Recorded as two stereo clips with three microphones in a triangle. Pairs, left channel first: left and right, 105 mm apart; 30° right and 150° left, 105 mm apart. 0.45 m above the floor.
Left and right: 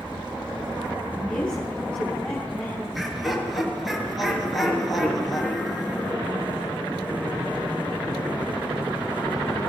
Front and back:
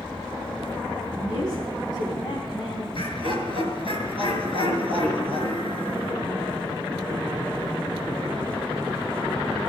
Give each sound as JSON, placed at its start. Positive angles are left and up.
{"t": 1.1, "sound": "a woman speaking", "azimuth_deg": 10, "distance_m": 4.0}
{"t": 2.9, "sound": "laughter", "azimuth_deg": 0, "distance_m": 5.5}